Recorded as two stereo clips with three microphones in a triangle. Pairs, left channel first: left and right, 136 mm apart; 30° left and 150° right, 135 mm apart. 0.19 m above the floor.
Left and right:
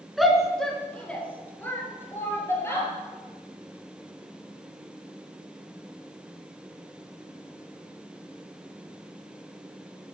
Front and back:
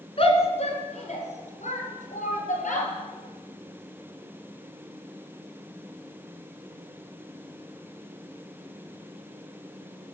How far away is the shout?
About 2.5 m.